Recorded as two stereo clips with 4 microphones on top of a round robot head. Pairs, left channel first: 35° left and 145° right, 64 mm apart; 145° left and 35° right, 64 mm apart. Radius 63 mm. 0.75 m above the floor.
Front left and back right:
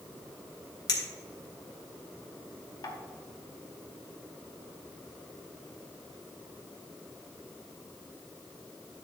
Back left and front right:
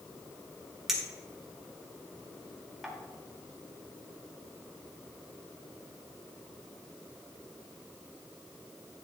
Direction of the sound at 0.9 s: 50° left.